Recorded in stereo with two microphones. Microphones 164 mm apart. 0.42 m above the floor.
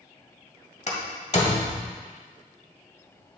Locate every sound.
0.9 s a door slam: 50° left (ahead or behind), 1.5 m